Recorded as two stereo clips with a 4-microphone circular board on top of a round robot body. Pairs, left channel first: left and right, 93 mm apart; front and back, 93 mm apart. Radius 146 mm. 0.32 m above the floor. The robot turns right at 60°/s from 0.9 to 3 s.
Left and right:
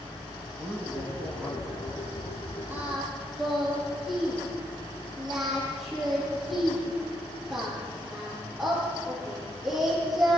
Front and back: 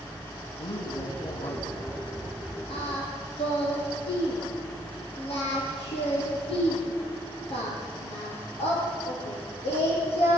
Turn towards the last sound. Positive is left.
turn(degrees=0)